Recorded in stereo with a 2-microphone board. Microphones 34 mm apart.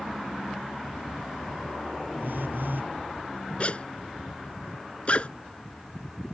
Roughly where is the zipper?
Left.